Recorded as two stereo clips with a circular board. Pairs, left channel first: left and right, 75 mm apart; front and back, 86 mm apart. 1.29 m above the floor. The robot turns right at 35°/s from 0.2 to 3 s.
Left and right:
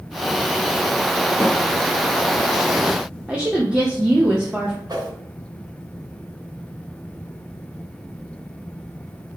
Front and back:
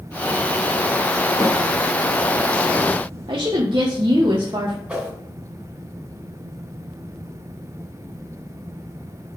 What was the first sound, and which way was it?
A snare drum, 25° right.